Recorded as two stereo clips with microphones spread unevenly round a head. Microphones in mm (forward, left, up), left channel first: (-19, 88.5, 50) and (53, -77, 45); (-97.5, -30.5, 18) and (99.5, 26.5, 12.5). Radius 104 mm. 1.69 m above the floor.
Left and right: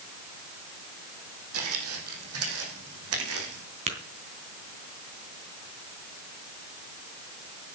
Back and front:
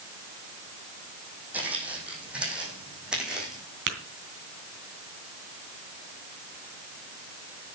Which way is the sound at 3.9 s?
15° right.